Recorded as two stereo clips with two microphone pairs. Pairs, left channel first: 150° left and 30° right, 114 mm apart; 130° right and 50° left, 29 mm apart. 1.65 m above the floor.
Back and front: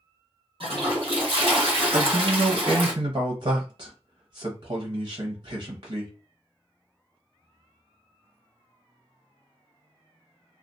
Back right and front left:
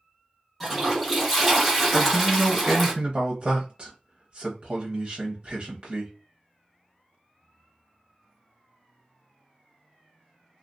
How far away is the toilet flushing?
About 1.1 m.